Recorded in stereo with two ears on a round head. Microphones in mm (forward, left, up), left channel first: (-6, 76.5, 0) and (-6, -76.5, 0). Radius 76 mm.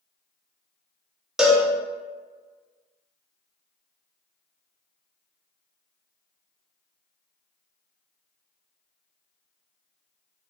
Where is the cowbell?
5° right (ahead or behind), 0.5 m.